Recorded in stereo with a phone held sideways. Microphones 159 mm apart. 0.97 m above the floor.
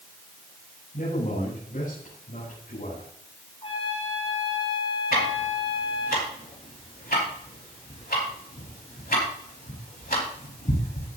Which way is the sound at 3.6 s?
40° left (ahead or behind).